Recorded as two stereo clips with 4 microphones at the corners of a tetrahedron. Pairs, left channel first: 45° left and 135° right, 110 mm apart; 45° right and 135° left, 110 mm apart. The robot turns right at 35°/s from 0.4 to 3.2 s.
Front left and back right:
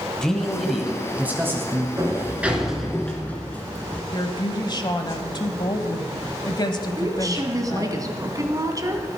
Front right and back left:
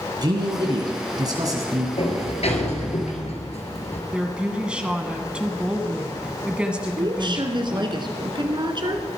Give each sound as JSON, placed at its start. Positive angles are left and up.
{"t": 0.2, "sound": "a man speaking", "azimuth_deg": 125, "distance_m": 1.7}
{"t": 2.0, "sound": "a sliding door", "azimuth_deg": -75, "distance_m": 2.0}
{"t": 4.1, "sound": "a woman speaking", "azimuth_deg": 60, "distance_m": 1.2}
{"t": 7.0, "sound": "a woman speaking", "azimuth_deg": 170, "distance_m": 1.8}